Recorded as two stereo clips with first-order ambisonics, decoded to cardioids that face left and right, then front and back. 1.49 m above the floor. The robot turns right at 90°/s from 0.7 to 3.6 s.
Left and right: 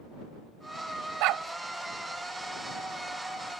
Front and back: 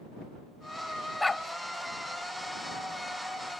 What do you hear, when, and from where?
1.2 s a dog barking: 85° right; by 1.4 s 65° right